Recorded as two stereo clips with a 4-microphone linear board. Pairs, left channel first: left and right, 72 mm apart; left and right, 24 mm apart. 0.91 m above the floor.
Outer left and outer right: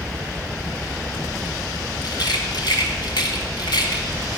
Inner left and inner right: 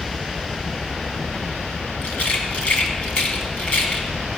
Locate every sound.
2.0 s a rattle: 75° left (ahead or behind), 2 m